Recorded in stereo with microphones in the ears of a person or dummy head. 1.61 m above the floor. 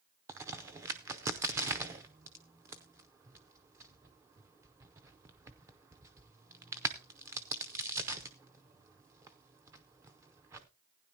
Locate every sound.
0.3 s a crack: 15° right (ahead or behind), 0.6 m